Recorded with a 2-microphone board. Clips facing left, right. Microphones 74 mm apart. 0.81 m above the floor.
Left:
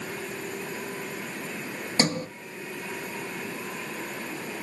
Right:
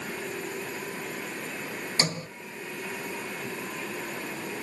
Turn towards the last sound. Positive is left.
turn(degrees=40)  # may be behind; listen again after turning